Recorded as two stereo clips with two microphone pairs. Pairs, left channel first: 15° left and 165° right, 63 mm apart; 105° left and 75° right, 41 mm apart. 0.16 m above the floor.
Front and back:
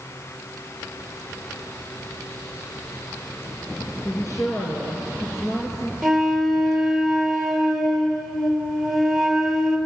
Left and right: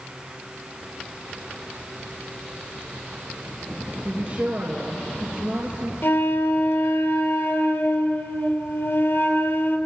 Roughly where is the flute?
Left.